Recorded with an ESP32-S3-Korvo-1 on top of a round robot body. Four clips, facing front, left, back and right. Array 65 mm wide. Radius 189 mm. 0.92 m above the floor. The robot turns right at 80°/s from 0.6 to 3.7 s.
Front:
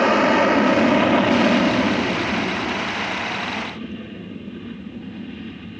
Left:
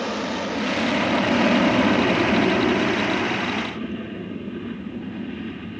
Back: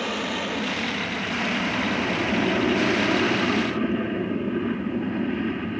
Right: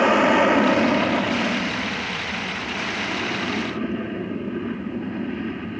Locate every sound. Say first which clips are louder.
0.0 s an aircraft: right 10 dB, front 12 dB; 45° right; by 5.8 s 155° right